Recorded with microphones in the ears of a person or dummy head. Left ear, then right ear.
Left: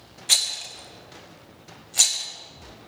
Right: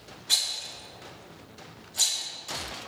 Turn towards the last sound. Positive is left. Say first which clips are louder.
# left 4 dB
turn(degrees=55)  # may be behind; listen again after turning